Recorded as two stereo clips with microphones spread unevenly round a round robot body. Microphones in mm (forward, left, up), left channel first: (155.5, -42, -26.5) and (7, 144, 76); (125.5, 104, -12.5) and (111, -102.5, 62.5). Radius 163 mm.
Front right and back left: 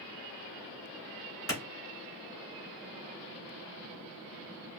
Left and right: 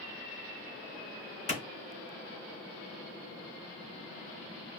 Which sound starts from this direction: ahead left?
A clap, at 1.5 s.